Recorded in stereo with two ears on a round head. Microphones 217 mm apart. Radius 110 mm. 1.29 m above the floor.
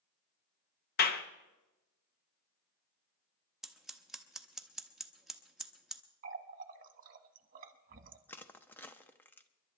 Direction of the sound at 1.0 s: 40° left (ahead or behind).